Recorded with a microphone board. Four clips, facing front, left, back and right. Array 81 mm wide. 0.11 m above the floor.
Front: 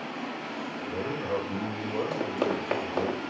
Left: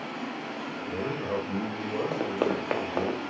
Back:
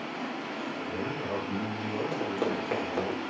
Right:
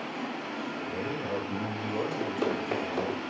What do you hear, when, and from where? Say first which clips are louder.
0.8 s a man speaking: left 4 dB, front 3 dB; 95° left, 7 m
2.1 s running footsteps: left 2 dB, front 1 dB; 75° left, 4.5 m